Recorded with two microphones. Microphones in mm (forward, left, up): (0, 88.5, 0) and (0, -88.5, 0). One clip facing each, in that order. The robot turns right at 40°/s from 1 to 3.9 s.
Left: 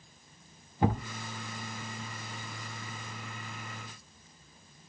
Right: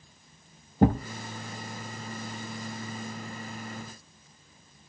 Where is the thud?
50° right (ahead or behind), 0.6 m.